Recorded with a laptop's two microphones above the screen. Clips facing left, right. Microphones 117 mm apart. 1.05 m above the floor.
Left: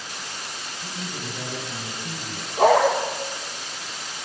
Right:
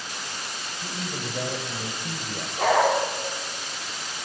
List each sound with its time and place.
0.8 s a man speaking: 50° right (ahead or behind), 6.5 m; by 2.5 s 60° right (ahead or behind), 6.5 m
2.6 s a dog barking: 30° left (ahead or behind), 8 m